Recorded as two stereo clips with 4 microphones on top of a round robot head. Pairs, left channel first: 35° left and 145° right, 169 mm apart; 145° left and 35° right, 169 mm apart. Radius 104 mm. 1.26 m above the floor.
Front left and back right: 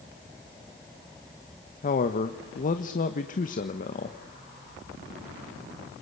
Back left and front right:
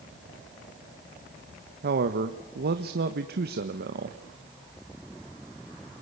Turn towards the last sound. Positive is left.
turn(degrees=-5)